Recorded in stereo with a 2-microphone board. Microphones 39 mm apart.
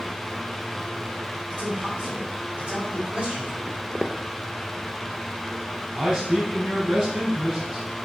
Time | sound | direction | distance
1.5 | a man speaking | 40° right (ahead or behind) | 3 m
3.7 | footsteps | 25° right (ahead or behind) | 0.5 m
6.0 | a man speaking | 25° right (ahead or behind) | 3.5 m